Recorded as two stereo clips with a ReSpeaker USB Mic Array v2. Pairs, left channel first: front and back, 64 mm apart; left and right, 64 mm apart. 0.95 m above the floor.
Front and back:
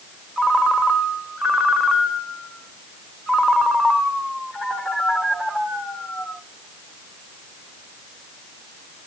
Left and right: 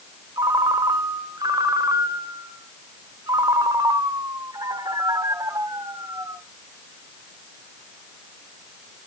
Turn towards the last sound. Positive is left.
turn(degrees=-95)